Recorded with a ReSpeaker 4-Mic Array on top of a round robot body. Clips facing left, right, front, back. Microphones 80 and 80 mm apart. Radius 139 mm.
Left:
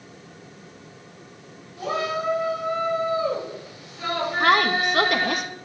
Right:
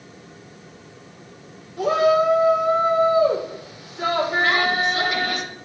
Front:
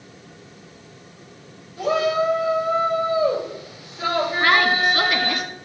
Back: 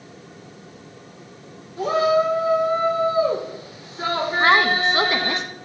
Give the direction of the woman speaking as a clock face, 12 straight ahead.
8 o'clock.